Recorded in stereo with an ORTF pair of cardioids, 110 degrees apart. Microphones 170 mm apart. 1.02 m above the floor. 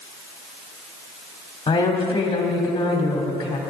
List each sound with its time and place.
1.7 s a woman speaking: 30° left, 3 m